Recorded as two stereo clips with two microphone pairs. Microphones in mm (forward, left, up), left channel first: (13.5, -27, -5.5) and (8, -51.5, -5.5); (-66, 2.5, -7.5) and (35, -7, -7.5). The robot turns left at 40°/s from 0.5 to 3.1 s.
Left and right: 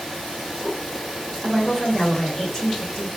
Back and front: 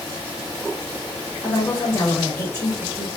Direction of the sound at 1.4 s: 160° right.